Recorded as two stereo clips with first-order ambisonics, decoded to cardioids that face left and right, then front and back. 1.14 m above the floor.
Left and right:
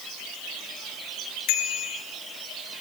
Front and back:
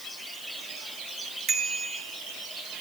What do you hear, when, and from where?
1.5 s a bicycle bell: 125° left, 5.5 m